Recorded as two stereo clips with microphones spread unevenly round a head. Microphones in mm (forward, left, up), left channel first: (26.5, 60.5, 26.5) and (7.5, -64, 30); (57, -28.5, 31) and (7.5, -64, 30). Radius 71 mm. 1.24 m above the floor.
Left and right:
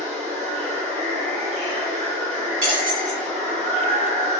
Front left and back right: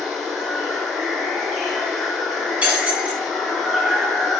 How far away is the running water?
About 1.8 m.